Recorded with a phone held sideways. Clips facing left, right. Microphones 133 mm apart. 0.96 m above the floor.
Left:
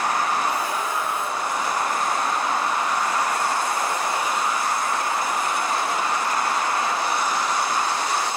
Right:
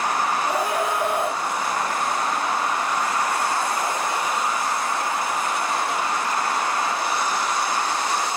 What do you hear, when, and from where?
0.5 s a scream: 70° right (ahead or behind), 5 m